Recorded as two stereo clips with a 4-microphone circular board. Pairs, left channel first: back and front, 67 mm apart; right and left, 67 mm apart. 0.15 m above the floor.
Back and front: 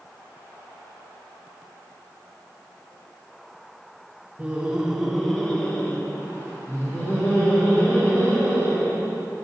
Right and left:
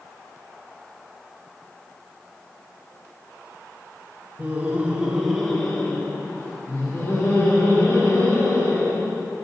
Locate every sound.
4.4 s laughter: 60° left, 2.0 m; by 9.2 s 130° right, 5.5 m